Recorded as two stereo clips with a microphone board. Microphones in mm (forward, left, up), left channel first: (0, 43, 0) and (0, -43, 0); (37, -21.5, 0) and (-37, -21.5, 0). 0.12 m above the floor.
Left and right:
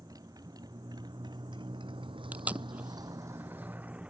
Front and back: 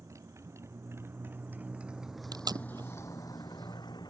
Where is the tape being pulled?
165° right.